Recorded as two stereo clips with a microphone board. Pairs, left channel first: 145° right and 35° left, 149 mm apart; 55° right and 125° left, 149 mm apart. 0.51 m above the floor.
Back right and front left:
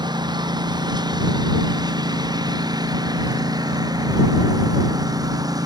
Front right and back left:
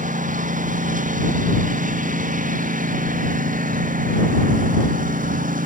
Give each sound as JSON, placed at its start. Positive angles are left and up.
{"t": 0.0, "sound": "a lawn mower", "azimuth_deg": 95}